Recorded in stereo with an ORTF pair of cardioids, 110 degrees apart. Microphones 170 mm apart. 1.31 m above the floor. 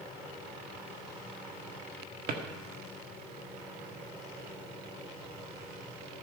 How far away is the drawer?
About 1.6 m.